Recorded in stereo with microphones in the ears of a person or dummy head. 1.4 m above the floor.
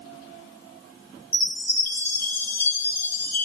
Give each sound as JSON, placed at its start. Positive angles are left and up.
{"t": 1.3, "sound": "a chime", "side_deg": 10, "distance_m": 3.0}